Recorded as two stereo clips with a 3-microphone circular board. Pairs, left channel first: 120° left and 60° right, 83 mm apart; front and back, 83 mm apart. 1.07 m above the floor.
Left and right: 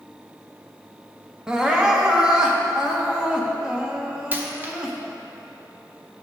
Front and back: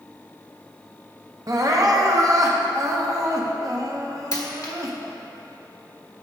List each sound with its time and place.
1.5 s crying: 140° right, 0.8 m
4.3 s a dropped coin: 5° right, 0.9 m